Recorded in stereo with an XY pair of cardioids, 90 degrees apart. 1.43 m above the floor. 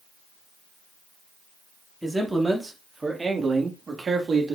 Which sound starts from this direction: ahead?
A man speaking, at 2.0 s.